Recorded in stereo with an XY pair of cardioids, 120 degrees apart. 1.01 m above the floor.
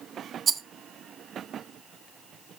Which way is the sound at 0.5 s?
40° right.